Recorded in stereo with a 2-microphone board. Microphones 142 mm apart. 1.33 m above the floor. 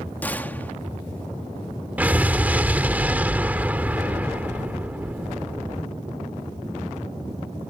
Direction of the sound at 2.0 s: 10° right (ahead or behind).